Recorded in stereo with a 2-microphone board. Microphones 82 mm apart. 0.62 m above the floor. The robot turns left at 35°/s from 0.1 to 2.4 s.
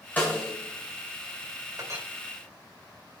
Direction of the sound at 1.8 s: 50° right (ahead or behind).